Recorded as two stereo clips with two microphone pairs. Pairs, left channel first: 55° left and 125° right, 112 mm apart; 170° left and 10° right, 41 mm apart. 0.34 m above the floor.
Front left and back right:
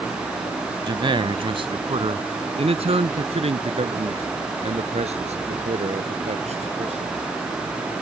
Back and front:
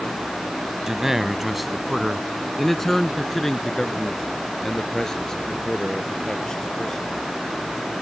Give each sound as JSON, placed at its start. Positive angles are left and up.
{"t": 0.9, "sound": "a man speaking", "azimuth_deg": -85}